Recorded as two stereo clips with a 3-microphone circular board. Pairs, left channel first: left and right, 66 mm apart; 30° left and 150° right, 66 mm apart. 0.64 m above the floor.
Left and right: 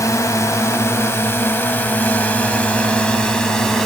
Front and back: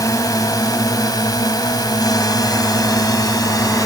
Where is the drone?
55° left; by 3.9 s 5° left.